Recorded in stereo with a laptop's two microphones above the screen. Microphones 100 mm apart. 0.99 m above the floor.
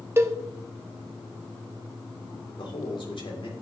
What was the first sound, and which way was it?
A cowbell, 25° right (ahead or behind).